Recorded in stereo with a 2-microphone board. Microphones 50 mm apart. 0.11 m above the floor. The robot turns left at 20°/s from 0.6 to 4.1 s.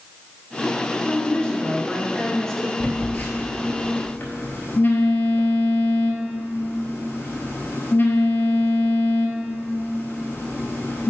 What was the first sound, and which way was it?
A woman speaking, 20° left (ahead or behind).